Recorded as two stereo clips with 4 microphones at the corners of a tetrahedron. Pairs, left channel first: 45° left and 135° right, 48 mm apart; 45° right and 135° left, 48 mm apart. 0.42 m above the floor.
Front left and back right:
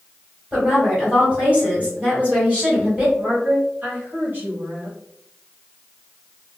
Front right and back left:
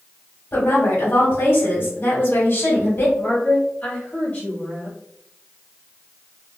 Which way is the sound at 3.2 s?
90° right.